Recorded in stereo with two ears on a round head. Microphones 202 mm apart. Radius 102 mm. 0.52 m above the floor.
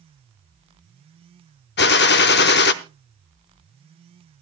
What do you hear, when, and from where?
1.8 s a gunshot: 45° left (ahead or behind), 0.7 m